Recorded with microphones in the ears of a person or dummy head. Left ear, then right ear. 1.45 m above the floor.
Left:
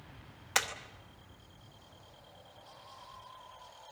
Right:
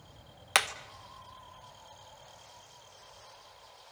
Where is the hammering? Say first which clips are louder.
Right 5 dB; 35° right (ahead or behind), 1.0 m.